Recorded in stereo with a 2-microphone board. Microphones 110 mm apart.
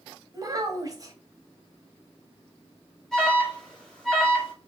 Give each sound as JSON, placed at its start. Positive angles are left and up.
{"t": 0.3, "sound": "a child speaking", "side_deg": -30, "distance_m": 1.1}
{"t": 3.1, "sound": "an alarm", "side_deg": 5, "distance_m": 1.9}